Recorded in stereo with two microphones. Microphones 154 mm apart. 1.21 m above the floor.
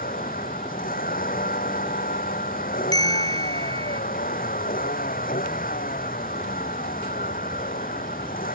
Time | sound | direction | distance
0.0 | a vehicle | 65° left (ahead or behind) | ?
2.9 | a bell | 25° left (ahead or behind) | ?